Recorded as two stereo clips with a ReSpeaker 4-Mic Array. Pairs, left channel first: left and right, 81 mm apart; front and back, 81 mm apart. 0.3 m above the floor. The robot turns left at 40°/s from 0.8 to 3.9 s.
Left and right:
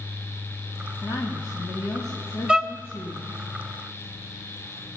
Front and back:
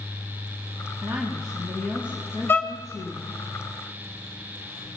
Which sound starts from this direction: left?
A woman speaking, at 1.0 s.